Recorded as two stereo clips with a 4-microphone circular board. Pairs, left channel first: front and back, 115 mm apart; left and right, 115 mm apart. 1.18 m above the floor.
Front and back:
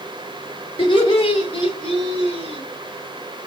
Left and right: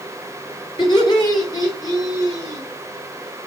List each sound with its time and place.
0.8 s laughter: 45° left, 4.5 m; by 2.6 s 30° left, 4.5 m